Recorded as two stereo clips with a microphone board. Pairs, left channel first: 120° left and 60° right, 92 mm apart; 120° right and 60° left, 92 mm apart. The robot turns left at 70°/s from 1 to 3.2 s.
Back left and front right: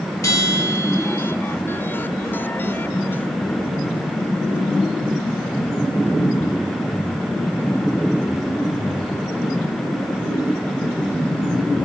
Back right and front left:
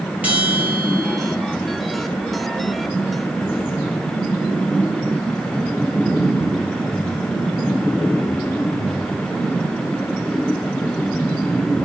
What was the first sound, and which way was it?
A bell, 125° left.